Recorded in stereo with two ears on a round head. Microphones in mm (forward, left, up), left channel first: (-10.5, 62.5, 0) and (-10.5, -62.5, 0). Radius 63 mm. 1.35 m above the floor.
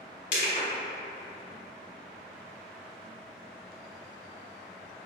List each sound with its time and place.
0.3 s crushing: 65° left (ahead or behind), 1.9 m